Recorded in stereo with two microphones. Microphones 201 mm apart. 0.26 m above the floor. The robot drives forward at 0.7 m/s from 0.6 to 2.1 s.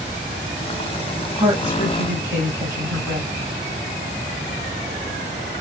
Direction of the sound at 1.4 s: 10° right (ahead or behind).